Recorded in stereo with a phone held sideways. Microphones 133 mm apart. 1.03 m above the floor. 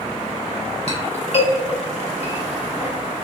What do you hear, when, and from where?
0.9 s a clink: 50° left (ahead or behind), 1.2 m